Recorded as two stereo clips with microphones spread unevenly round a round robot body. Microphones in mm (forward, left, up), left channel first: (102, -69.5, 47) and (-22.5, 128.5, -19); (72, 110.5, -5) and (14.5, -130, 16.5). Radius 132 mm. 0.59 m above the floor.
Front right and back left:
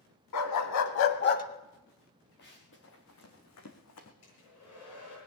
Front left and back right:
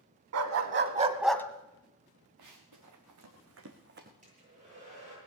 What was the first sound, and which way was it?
A dog barking, 80° right.